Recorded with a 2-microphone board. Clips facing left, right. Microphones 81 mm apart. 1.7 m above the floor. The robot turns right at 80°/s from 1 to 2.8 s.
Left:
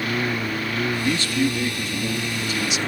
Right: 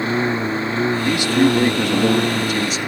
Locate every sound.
0.0 s a lawn mower: 155° right; by 2.9 s 10° right
1.1 s a man speaking: 175° right; by 2.8 s 40° right